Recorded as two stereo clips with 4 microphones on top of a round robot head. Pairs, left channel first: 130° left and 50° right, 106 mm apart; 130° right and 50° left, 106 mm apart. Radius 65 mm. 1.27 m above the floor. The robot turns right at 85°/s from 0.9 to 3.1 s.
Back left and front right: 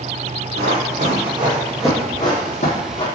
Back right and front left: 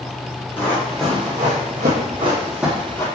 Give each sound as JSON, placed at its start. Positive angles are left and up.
{"t": 0.6, "sound": "running footsteps", "azimuth_deg": -65, "distance_m": 2.5}